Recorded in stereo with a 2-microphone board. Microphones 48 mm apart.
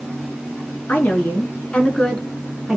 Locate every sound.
0.9 s a woman speaking: 45° left (ahead or behind), 1.9 m; by 2.8 s 5° right (ahead or behind), 1.3 m